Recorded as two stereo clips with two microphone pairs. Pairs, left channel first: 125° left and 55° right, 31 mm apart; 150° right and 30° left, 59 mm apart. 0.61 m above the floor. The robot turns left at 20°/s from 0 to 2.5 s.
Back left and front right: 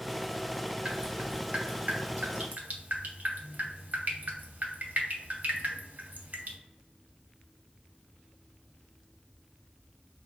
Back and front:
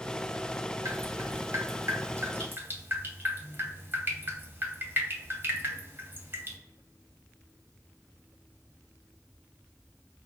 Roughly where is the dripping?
Ahead.